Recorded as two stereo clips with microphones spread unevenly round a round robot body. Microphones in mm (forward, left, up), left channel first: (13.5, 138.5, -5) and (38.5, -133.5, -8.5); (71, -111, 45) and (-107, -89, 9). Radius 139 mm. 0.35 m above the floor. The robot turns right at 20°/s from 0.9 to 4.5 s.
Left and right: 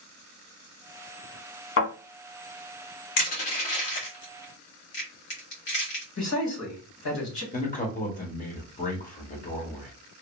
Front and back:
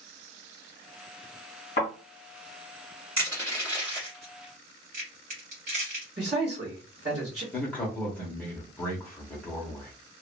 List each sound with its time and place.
1.8 s a thud: 55° left, 1.8 m
3.2 s crushing: 105° left, 1.7 m; by 6.0 s 130° left, 1.7 m
6.2 s a man speaking: 115° left, 1.7 m
7.5 s a man speaking: 90° left, 0.8 m